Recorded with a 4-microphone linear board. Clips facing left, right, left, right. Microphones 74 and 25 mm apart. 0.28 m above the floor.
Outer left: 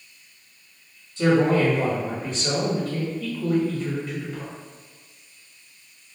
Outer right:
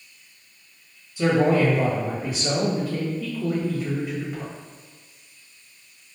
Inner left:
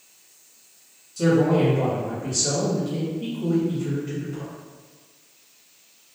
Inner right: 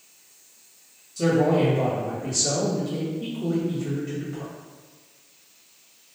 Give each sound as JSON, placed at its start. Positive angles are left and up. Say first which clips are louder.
{"t": 1.2, "sound": "a man speaking", "louder": "even, inner left 1 dB", "side_deg": -10, "distance_m": 1.1}